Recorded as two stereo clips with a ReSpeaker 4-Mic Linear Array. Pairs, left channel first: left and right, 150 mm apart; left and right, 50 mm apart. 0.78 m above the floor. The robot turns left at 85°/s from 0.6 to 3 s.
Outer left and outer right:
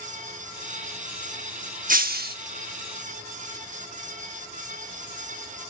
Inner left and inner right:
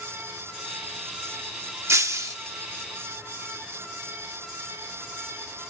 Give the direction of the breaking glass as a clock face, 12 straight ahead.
2 o'clock.